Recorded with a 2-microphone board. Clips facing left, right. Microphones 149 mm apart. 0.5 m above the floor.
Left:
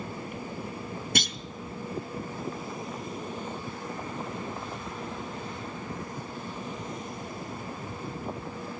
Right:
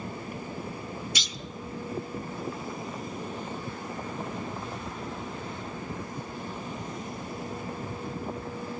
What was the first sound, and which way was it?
A clunk, 55° left (ahead or behind).